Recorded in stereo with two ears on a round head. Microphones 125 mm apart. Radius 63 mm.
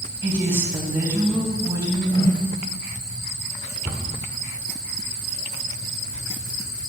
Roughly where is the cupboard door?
Centre.